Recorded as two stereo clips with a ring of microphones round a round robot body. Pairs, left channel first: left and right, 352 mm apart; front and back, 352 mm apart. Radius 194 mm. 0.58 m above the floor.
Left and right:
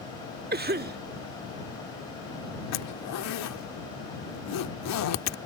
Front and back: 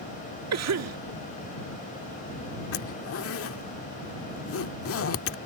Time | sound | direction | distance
0.5 | a cough | 150° right | ?
2.7 | a zipper | 50° left | ?